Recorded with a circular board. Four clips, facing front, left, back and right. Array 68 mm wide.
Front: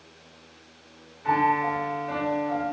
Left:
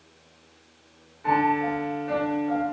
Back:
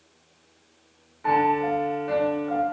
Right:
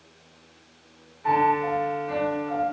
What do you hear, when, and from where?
1.2 s a piano: 170° left, 1.0 m